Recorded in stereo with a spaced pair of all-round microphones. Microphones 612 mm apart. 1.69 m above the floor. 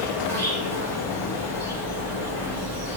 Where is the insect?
25° right (ahead or behind), 3 m.